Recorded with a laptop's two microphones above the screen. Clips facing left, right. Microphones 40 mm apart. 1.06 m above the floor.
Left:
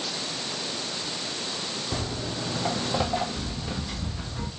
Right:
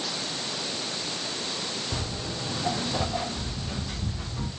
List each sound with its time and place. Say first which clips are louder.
1.9 s footsteps: left 2 dB; 35° left (ahead or behind), 1.4 m; by 4.5 s 25° left (ahead or behind), 1.5 m